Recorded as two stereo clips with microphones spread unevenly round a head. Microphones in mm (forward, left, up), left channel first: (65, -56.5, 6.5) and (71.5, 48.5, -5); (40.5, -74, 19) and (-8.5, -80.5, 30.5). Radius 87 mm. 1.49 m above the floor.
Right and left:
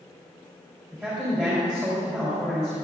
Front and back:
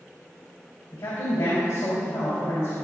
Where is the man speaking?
10° left, 3.5 m.